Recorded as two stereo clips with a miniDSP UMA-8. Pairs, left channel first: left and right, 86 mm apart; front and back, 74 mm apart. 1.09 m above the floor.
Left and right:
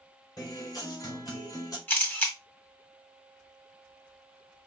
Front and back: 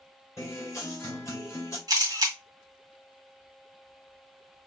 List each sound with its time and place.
0.4 s a guitar: 50° left, 2.5 m
1.9 s a camera shutter: 155° left, 1.6 m